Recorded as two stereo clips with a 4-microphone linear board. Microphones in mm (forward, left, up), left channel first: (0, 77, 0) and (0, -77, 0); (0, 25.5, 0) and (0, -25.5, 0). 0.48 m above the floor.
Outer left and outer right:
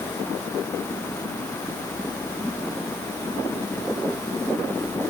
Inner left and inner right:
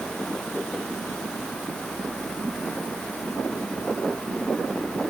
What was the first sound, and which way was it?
Only background noise.